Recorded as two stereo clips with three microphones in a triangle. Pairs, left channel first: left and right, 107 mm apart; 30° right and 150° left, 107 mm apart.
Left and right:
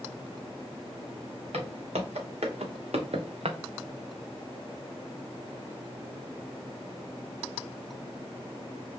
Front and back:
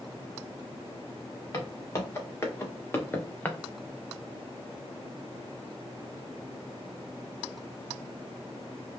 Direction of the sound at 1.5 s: 95° right.